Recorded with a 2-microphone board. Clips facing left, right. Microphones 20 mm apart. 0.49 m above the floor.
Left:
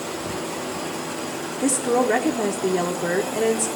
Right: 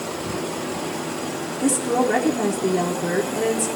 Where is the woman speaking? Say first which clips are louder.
Even; 20° left (ahead or behind), 0.9 m.